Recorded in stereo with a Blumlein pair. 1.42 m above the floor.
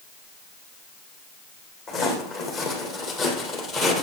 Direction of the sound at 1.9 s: 30° left.